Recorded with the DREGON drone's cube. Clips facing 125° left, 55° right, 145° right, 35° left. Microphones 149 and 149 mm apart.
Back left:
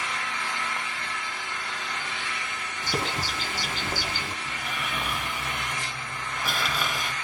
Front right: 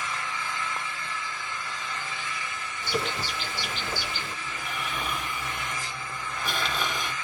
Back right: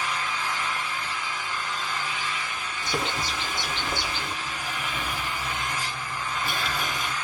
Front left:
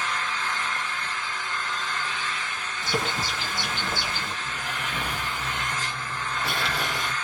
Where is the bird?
120° left, 1.7 m.